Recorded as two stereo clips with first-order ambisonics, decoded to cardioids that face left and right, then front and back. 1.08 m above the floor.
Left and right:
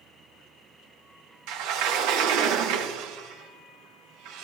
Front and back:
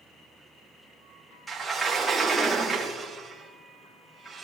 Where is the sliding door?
100° right, 1.5 m.